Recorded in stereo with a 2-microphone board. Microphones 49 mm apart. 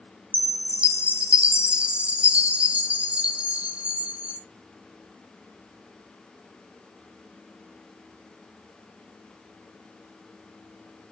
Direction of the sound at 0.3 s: 30° right (ahead or behind).